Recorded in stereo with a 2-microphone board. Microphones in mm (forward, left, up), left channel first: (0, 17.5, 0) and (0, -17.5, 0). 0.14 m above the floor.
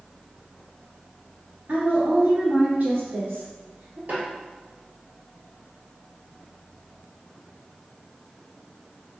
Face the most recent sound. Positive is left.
turn(degrees=-50)  # may be behind; listen again after turning